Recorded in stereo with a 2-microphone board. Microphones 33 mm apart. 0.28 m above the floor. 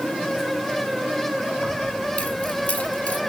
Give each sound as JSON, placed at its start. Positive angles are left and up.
{"t": 1.6, "sound": "keys jangling", "side_deg": 45, "distance_m": 6.5}